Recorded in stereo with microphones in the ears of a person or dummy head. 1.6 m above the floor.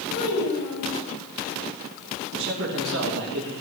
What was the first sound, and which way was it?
A child speaking, 55° left (ahead or behind).